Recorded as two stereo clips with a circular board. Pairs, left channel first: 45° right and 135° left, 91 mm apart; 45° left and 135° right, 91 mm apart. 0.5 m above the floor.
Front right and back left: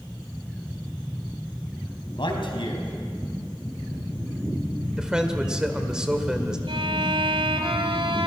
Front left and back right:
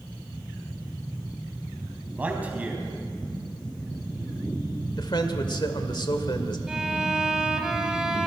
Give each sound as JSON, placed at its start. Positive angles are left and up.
{"t": 2.1, "sound": "a man speaking", "azimuth_deg": -60, "distance_m": 4.0}
{"t": 5.0, "sound": "a man speaking", "azimuth_deg": 55, "distance_m": 1.8}
{"t": 6.7, "sound": "a violin", "azimuth_deg": 140, "distance_m": 2.0}